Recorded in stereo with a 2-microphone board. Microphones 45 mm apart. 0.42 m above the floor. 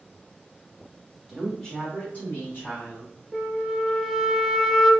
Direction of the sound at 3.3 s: 5° right (ahead or behind).